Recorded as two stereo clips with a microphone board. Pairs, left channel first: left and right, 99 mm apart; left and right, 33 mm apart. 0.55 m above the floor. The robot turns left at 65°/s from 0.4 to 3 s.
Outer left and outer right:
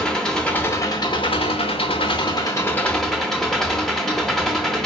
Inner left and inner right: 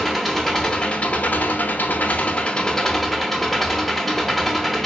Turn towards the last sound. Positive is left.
turn(degrees=5)